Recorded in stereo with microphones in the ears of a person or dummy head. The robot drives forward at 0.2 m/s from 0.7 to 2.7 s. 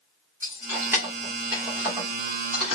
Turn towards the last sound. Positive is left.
turn(degrees=-10)  # may be behind; listen again after turning